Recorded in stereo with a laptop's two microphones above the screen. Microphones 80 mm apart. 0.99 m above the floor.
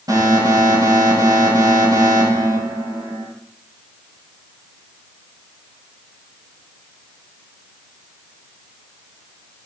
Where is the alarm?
55° right (ahead or behind), 6 m.